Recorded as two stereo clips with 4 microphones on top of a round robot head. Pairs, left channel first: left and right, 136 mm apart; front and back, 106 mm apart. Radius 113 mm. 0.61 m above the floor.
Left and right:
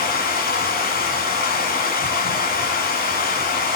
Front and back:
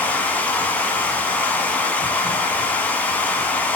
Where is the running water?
80° left, 2.5 m.